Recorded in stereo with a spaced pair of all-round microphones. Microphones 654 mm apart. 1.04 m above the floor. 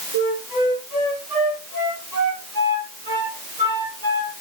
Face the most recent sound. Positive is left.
turn(degrees=-30)  # may be behind; listen again after turning